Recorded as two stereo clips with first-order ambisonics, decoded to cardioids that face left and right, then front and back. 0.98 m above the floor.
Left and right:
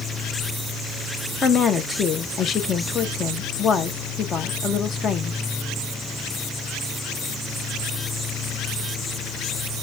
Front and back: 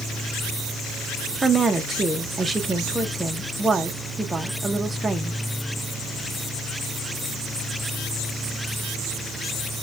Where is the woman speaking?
115° left, 0.5 m.